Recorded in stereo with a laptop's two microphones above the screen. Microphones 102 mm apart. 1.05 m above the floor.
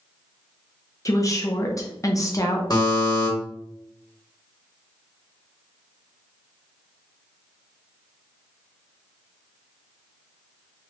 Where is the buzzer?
40° left (ahead or behind), 1.0 m.